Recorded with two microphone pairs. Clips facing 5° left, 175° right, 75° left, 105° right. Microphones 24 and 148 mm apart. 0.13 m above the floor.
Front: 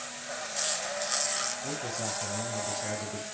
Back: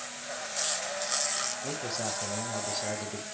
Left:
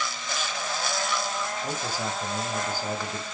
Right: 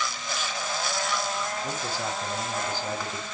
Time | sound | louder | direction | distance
1.6 | a man speaking | back 1 dB, even | 155° left | 4.5 m